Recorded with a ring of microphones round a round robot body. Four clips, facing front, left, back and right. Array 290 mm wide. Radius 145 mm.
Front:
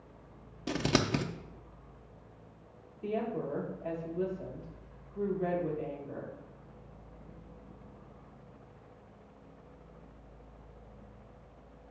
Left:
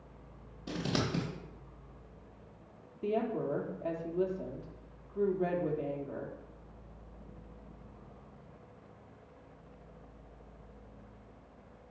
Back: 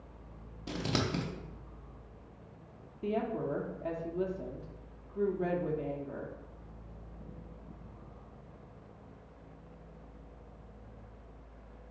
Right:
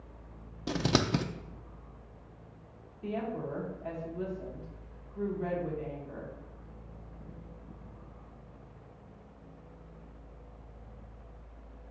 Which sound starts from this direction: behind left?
A woman speaking, at 3.0 s.